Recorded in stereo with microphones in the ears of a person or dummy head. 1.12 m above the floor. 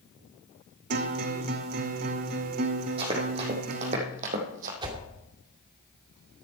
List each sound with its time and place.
0.9 s a guitar: 45° right (ahead or behind), 0.9 m
3.0 s running footsteps: 30° right (ahead or behind), 4 m; by 4.7 s 40° right (ahead or behind), 3.5 m
4.8 s a whoosh: 25° right (ahead or behind), 2.5 m